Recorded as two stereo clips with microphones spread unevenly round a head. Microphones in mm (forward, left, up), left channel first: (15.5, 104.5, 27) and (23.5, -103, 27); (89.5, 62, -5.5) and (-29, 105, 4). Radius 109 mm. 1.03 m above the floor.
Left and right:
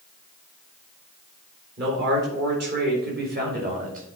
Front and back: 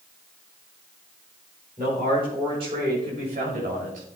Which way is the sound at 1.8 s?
130° right.